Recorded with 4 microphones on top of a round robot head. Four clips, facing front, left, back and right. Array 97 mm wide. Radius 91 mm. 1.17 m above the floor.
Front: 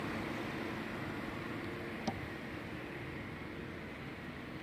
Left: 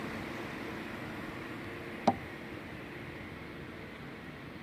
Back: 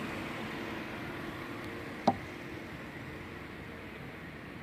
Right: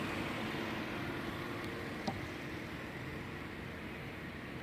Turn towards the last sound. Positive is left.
turn(degrees=135)